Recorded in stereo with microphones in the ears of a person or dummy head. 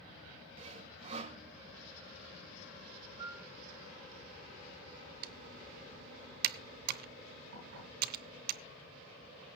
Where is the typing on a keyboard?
55° right (ahead or behind), 0.8 m.